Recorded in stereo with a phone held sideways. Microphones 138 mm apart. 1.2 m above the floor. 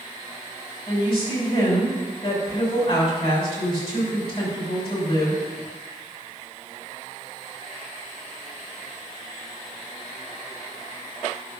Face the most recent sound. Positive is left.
turn(degrees=40)  # may be behind; listen again after turning